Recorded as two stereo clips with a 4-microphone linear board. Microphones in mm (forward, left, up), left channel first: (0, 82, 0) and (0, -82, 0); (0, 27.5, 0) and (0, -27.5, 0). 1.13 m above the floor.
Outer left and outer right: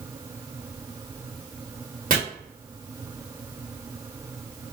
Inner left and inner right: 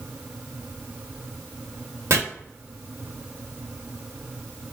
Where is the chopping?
60° right (ahead or behind), 1.9 m.